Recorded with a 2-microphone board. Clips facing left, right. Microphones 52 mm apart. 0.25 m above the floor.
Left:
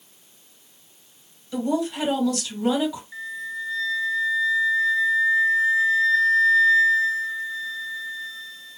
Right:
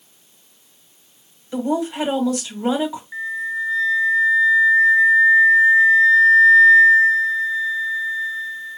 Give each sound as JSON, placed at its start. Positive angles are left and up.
{"t": 1.5, "sound": "a woman speaking", "side_deg": -25, "distance_m": 1.7}
{"t": 3.1, "sound": "a flute", "side_deg": -30, "distance_m": 1.6}